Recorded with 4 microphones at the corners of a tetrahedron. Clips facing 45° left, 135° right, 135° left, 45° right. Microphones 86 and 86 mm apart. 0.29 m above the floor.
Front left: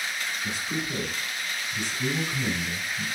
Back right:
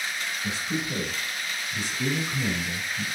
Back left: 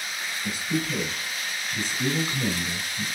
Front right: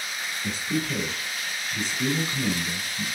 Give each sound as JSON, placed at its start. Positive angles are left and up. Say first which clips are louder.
{"t": 0.4, "sound": "a man speaking", "louder": "back right 3 dB, even", "azimuth_deg": -80, "distance_m": 1.9}